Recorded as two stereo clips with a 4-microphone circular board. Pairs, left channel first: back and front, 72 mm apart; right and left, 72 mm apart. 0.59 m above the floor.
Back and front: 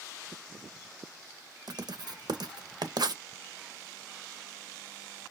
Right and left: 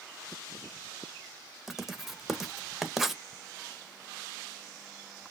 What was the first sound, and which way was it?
Writing, 5° left.